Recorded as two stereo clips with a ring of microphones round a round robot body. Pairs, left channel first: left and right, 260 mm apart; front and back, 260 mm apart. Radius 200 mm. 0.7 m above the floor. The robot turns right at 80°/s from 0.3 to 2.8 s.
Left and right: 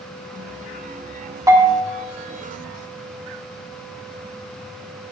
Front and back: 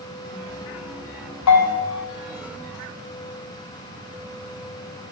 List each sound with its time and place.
1.5 s a bell: 10° right, 2.5 m; by 1.9 s 20° left, 2.5 m